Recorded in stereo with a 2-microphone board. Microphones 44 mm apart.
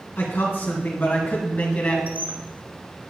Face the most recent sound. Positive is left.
turn(degrees=-40)  # may be behind; listen again after turning